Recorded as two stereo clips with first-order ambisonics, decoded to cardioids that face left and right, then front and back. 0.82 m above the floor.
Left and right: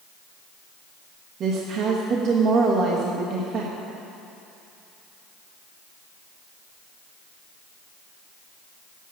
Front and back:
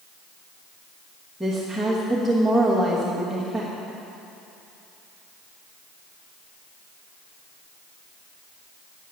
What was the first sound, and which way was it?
A woman speaking, 90° right.